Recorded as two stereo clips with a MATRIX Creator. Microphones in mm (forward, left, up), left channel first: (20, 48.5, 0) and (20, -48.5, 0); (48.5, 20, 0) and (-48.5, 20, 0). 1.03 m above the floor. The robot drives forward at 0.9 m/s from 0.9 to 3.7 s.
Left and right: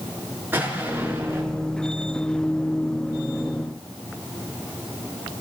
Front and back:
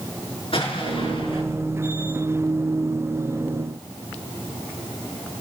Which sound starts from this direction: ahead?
An explosion, at 0.5 s.